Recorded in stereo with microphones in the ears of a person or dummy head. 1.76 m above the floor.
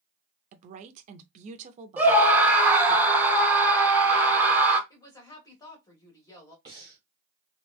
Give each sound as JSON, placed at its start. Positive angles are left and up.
{"t": 0.5, "sound": "a woman speaking", "side_deg": -35, "distance_m": 0.5}
{"t": 2.0, "sound": "a scream", "side_deg": -10, "distance_m": 0.9}
{"t": 4.9, "sound": "a woman speaking", "side_deg": 15, "distance_m": 1.2}
{"t": 6.7, "sound": "breathing", "side_deg": -20, "distance_m": 1.1}